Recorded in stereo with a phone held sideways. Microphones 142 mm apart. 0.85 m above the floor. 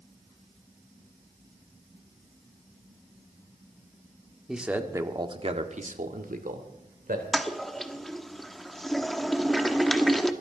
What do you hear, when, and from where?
4.5 s a man speaking: 5° right (ahead or behind), 1.9 m; by 7.2 s 80° right, 3 m
7.3 s a toilet flushing: centre (ahead or behind), 1.1 m